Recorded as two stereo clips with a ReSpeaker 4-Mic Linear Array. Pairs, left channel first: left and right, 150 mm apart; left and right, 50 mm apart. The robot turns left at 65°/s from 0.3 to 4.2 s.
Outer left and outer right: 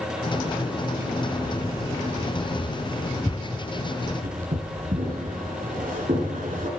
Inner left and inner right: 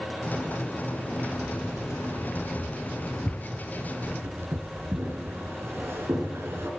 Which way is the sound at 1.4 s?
60° left (ahead or behind).